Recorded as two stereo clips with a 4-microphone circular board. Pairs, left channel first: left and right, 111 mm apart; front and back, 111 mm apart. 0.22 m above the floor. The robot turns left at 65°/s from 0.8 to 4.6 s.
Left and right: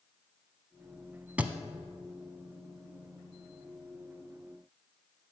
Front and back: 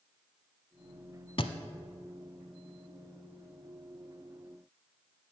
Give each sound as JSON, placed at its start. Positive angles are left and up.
{"t": 1.4, "sound": "a thud", "azimuth_deg": -15, "distance_m": 0.7}